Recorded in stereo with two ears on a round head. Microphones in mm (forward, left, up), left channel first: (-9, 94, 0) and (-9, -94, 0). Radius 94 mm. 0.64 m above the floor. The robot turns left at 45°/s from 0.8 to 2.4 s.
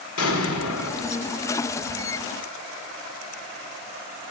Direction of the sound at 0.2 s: 70° left (ahead or behind).